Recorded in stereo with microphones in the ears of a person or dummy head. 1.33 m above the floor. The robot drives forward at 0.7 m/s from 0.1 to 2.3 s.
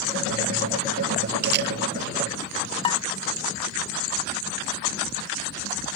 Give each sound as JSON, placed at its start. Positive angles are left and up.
{"t": 1.4, "sound": "a camera shutter", "side_deg": -60}
{"t": 2.8, "sound": "dishes clattering", "side_deg": 30}